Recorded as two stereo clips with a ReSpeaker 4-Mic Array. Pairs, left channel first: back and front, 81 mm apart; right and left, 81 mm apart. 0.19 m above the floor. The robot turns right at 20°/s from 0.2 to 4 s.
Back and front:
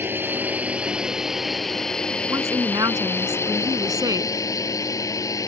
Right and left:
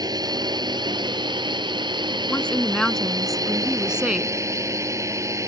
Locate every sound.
0.0 s a drone: 60° left; by 5.5 s 140° left
2.3 s a woman speaking: 20° right; by 4.3 s 15° left